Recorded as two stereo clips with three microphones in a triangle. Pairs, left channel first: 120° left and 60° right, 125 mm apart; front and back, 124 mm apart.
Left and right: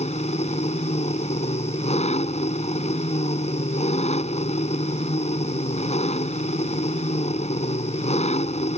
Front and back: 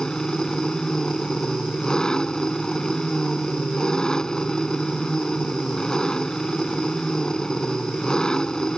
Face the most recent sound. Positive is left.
turn(degrees=85)